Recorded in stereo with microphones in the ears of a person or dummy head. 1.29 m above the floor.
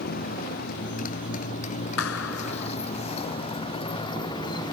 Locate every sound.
0.0 s a motorcycle: 50° left (ahead or behind); by 4.8 s 20° left (ahead or behind)
2.0 s a clap: 80° left